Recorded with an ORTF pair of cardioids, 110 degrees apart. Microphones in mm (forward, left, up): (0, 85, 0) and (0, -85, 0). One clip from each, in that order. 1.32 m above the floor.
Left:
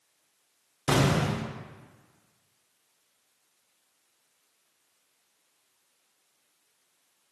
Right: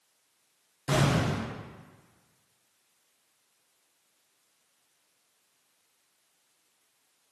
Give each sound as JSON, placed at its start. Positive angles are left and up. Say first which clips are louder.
{"t": 0.9, "sound": "an explosion", "louder": "left 2 dB", "azimuth_deg": 45, "distance_m": 0.5}